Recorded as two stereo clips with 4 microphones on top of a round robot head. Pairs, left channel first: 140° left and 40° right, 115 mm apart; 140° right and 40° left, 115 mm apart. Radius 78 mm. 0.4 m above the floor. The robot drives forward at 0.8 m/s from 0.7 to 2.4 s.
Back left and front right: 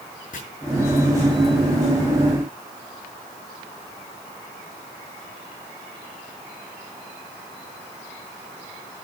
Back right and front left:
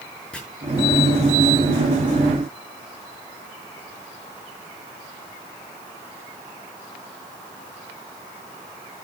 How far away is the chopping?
About 6.5 m.